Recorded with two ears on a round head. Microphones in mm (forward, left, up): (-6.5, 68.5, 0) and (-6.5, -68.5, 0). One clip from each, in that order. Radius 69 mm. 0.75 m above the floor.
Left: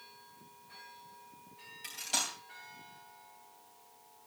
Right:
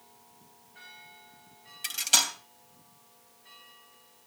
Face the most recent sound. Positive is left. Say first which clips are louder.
# right 10 dB
turn(degrees=-55)  # may be behind; listen again after turning